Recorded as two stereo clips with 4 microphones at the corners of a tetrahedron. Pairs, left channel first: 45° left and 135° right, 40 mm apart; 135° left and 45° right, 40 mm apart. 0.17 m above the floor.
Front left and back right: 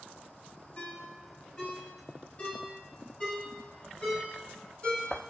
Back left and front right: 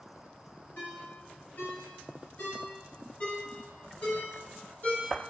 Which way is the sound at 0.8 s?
100° left.